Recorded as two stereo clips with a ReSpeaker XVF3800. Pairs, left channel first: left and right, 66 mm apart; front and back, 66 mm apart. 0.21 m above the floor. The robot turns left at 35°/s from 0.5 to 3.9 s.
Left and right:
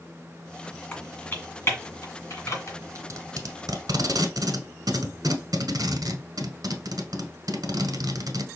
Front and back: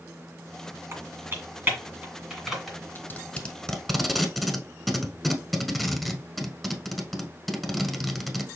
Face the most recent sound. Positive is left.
turn(degrees=-90)